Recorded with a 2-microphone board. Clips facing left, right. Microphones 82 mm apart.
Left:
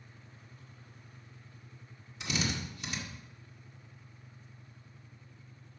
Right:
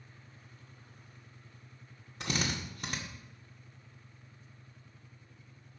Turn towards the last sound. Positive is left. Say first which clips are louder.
# even
turn(degrees=-45)  # may be behind; listen again after turning